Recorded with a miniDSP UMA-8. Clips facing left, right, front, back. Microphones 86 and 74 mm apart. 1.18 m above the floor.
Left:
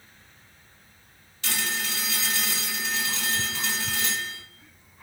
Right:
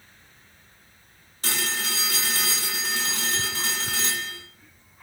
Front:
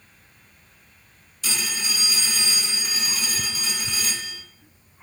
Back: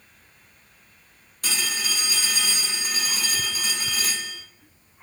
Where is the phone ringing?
145° right, 1.2 m.